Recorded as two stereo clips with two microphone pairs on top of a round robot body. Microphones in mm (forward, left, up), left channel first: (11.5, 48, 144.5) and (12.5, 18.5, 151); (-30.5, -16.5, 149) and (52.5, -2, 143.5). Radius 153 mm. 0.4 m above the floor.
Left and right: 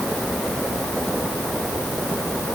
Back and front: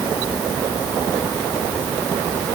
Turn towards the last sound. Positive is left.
No sound to turn to.